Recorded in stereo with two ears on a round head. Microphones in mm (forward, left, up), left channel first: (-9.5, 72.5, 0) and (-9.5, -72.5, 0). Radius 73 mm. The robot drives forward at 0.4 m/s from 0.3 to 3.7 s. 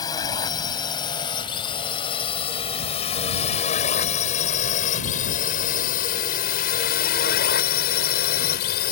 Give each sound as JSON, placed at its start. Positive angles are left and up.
{"t": 0.0, "sound": "a drone", "side_deg": 25}